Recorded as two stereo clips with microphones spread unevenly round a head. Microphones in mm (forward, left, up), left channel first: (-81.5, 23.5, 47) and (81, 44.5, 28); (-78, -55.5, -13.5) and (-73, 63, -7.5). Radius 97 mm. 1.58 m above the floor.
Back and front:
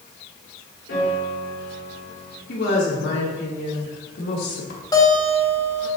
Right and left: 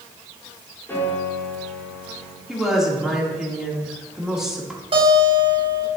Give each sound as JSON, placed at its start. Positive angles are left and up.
{"t": 0.9, "sound": "a piano", "azimuth_deg": -165, "distance_m": 3.5}
{"t": 2.5, "sound": "a woman speaking", "azimuth_deg": 170, "distance_m": 2.5}
{"t": 4.9, "sound": "a guitar", "azimuth_deg": 120, "distance_m": 3.0}